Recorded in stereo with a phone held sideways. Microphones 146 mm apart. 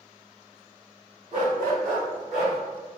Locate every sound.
1.3 s a dog barking: 55° right (ahead or behind), 1.1 m; by 2.6 s 50° right (ahead or behind), 1.7 m